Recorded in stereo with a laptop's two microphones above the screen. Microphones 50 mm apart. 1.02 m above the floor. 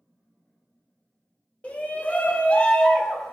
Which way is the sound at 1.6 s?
25° left (ahead or behind).